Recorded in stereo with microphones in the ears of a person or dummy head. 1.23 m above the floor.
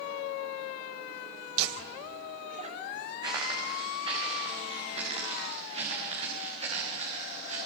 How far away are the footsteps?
About 6.5 m.